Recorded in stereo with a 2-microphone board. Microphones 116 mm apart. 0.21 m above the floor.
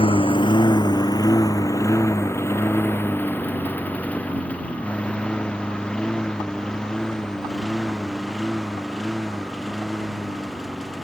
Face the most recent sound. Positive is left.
turn(degrees=0)  # may be behind; listen again after turning